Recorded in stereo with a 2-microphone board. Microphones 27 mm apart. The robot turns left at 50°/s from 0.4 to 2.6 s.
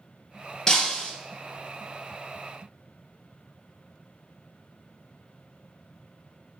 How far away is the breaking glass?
About 2 m.